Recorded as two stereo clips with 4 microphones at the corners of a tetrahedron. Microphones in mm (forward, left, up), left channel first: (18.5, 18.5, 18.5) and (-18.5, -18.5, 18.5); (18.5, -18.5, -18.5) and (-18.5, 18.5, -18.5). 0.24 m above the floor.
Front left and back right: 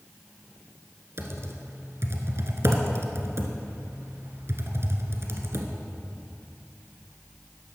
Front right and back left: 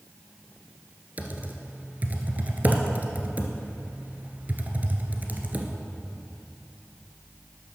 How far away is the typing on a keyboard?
About 1.4 m.